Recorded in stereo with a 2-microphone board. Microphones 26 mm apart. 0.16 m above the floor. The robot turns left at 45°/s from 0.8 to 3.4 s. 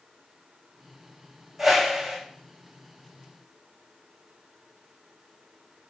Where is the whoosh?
5° right (ahead or behind), 1.8 m; by 2.2 s 30° right (ahead or behind), 1.8 m.